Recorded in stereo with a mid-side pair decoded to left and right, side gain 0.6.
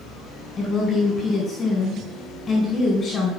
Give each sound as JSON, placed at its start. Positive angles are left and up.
{"t": 0.6, "sound": "a woman speaking", "azimuth_deg": 30, "distance_m": 4.5}